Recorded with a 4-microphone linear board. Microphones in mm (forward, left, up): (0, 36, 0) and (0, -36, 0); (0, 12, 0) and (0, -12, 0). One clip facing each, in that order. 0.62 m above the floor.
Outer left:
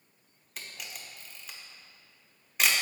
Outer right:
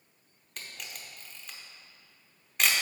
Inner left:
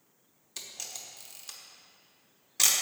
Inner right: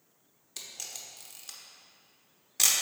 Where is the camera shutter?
Centre (ahead or behind), 0.9 m.